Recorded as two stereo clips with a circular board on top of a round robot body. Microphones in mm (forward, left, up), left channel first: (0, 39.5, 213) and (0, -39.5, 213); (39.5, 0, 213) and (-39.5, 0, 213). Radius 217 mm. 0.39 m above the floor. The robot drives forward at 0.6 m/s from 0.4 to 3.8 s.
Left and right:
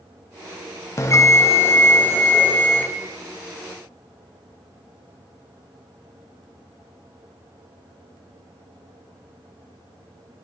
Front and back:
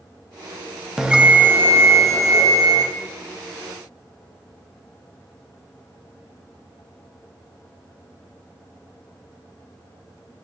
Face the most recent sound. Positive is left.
turn(degrees=165)